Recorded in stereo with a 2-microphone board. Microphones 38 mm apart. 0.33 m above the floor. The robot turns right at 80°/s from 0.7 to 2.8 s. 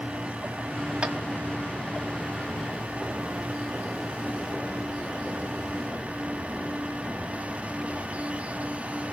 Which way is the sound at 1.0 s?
30° right (ahead or behind).